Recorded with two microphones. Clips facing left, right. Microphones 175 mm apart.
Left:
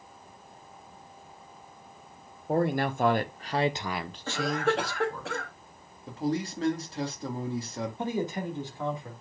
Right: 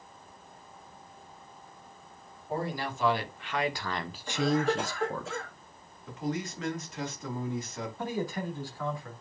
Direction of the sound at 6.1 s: 35° left (ahead or behind).